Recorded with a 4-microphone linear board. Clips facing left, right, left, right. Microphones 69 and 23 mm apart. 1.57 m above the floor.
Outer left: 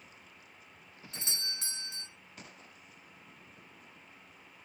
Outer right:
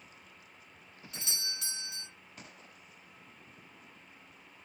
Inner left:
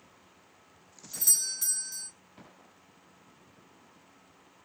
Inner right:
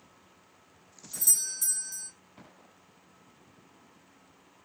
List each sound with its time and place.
1.1 s a doorbell: 35° left (ahead or behind), 0.8 m